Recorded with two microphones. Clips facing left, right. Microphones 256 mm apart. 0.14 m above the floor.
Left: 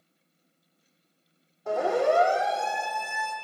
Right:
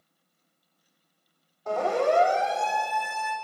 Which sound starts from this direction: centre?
A siren, at 1.7 s.